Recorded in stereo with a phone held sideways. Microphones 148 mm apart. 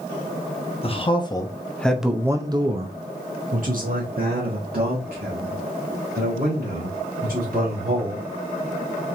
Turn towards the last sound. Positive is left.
turn(degrees=-80)